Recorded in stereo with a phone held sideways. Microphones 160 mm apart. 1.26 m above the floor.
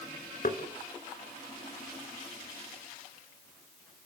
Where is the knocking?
55° left (ahead or behind), 2.5 m.